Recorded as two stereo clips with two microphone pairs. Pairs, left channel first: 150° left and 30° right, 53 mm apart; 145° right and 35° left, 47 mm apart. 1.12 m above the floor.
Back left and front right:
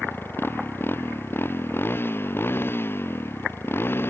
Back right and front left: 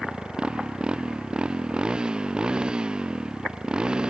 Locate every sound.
0.0 s a motorcycle: 100° left; by 4.1 s 105° left